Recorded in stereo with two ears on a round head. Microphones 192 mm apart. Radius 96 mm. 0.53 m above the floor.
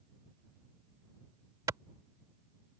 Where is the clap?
15° right (ahead or behind).